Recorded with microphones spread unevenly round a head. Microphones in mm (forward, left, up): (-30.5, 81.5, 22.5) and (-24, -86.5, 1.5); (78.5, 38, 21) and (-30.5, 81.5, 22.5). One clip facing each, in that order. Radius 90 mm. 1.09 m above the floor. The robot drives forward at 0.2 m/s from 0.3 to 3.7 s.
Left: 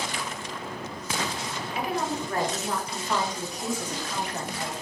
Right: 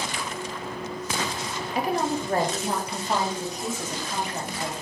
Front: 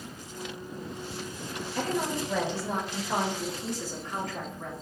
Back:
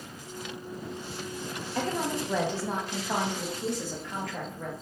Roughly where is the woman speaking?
Behind right.